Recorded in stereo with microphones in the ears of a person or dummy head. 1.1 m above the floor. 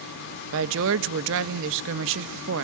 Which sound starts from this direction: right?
A woman speaking, at 0.5 s.